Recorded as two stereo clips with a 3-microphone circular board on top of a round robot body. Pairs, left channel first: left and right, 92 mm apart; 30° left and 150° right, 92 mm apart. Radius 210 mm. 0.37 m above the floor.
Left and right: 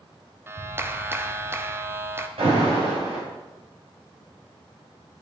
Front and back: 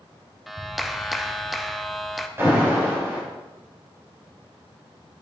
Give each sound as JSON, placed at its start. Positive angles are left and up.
{"t": 0.5, "sound": "a clap", "azimuth_deg": -65, "distance_m": 1.2}
{"t": 2.4, "sound": "an alarm", "azimuth_deg": -85, "distance_m": 4.5}